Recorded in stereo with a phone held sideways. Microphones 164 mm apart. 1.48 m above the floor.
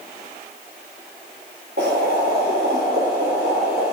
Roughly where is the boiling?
Right.